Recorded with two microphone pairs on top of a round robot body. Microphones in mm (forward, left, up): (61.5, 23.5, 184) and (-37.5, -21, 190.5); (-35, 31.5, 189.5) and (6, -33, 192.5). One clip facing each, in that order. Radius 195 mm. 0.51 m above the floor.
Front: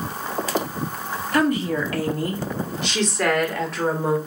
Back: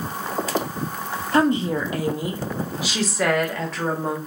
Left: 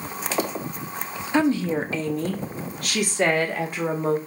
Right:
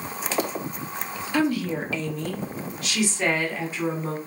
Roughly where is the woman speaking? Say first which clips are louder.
Back 1 dB, left 3 dB; behind.